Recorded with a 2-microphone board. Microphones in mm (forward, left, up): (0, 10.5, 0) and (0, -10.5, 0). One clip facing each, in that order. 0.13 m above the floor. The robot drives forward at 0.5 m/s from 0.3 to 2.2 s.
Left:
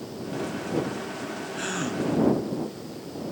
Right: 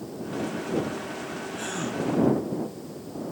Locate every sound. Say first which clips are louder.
1.6 s a gasp: left 2 dB; 25° left (ahead or behind), 0.7 m